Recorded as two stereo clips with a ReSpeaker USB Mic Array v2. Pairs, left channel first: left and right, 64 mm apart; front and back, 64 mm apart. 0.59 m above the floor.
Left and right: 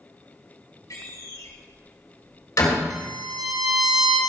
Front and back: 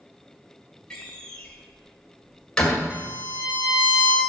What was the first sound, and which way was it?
A door slam, 75° left.